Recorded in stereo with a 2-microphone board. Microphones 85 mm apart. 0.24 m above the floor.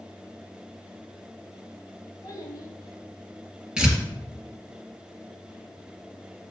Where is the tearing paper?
10° right (ahead or behind), 2 m.